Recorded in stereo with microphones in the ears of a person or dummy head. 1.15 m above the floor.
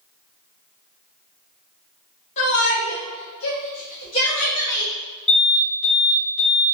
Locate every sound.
2.4 s a shout: 35° left (ahead or behind), 1.0 m; by 4.9 s 10° left (ahead or behind), 1.1 m
5.3 s an alarm: 5° left (ahead or behind), 1.5 m